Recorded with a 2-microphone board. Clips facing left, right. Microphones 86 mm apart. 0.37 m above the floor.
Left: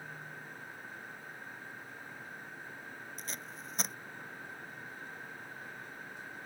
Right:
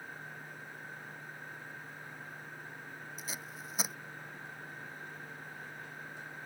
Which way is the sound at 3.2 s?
5° right (ahead or behind).